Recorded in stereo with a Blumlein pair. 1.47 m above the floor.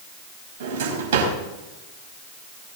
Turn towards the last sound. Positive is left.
turn(degrees=-55)